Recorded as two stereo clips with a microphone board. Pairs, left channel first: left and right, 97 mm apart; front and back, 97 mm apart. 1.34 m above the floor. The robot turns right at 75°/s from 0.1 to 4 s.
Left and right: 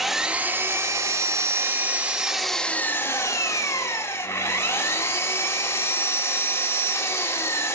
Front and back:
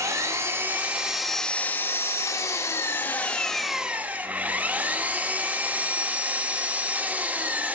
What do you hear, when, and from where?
0.0 s an engine running: 175° right, 1.0 m; by 7.8 s 120° left, 1.0 m